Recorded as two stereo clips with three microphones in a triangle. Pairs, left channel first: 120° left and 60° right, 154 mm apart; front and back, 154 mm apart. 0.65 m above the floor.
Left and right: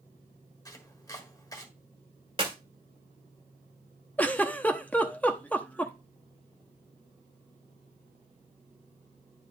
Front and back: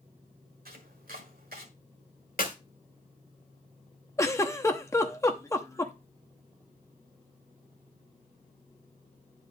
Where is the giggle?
50° left, 0.8 m.